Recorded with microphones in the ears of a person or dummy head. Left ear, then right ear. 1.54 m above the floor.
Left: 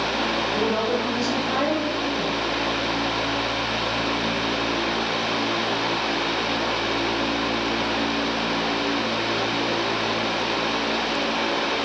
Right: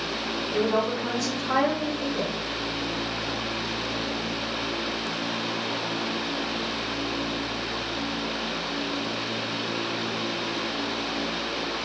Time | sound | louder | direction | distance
0.5 | a woman speaking | left 2 dB | 40° right (ahead or behind) | 3 m